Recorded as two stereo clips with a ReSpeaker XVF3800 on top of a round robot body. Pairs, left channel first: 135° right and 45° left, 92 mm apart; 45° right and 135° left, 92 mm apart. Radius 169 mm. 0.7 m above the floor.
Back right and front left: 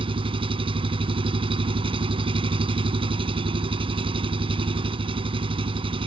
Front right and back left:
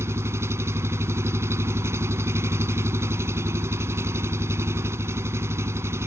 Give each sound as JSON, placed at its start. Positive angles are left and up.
{"t": 0.0, "sound": "an engine running", "azimuth_deg": 70}